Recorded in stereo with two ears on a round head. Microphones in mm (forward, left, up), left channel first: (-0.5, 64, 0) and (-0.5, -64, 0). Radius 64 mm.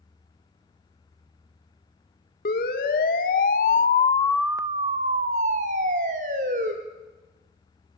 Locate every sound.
2.5 s a siren: 70° left (ahead or behind), 2.5 m; by 6.7 s 60° right (ahead or behind), 3.5 m